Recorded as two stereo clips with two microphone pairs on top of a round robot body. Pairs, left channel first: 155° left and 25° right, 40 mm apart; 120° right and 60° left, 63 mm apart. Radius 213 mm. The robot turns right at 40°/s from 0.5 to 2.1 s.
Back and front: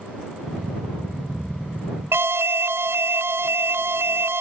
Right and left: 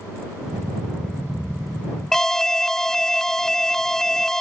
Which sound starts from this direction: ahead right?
An alarm, at 2.1 s.